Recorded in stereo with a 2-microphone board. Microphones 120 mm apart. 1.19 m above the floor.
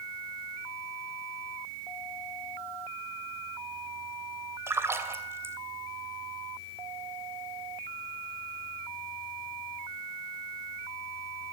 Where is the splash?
20° right (ahead or behind), 2.5 m.